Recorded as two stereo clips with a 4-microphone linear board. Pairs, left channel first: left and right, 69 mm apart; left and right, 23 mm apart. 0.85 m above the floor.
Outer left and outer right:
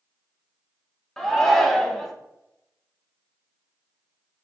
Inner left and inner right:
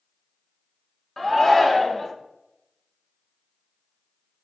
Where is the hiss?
I don't hear a hiss.